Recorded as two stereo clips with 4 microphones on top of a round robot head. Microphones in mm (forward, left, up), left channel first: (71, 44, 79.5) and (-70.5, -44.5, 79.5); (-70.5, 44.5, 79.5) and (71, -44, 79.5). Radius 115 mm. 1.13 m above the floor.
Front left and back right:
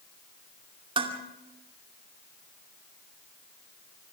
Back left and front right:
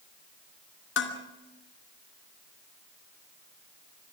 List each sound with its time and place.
1.0 s dishes clattering: 150° left, 2.5 m